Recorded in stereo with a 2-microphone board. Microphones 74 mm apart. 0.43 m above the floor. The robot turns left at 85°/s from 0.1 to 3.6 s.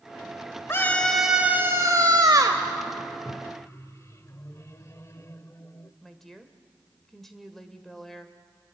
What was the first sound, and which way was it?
A scream, 40° left.